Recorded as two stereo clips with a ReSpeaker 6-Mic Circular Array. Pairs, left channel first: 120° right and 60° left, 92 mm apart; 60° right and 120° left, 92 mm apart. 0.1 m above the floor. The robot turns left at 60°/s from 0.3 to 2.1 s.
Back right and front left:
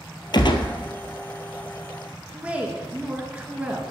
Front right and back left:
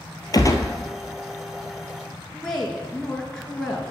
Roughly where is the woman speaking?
Ahead.